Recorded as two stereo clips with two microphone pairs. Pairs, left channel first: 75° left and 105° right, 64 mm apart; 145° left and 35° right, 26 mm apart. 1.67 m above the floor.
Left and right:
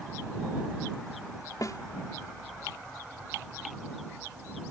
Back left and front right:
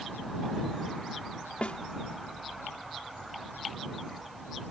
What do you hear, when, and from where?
1.6 s a snare drum: 105° left